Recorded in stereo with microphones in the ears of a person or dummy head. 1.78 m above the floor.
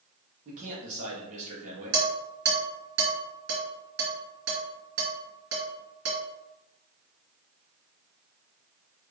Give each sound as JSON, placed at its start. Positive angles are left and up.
{"t": 0.5, "sound": "a man speaking", "side_deg": -40, "distance_m": 1.8}
{"t": 1.9, "sound": "dishes clattering", "side_deg": -60, "distance_m": 1.8}